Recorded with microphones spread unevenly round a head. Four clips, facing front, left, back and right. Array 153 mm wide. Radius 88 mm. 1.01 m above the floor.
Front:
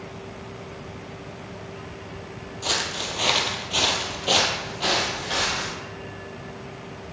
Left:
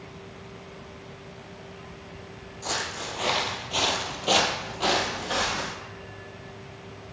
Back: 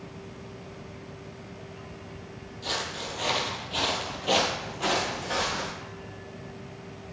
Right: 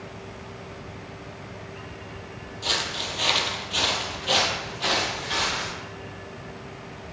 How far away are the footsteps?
About 1.6 m.